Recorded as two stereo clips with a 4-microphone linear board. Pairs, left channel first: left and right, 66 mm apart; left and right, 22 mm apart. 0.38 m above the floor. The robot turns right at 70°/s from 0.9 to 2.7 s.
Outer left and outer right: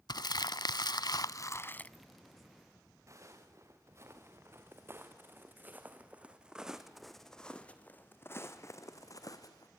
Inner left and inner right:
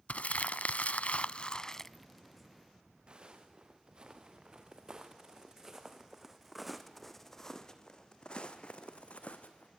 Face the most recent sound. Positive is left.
turn(degrees=65)  # may be behind; listen again after turning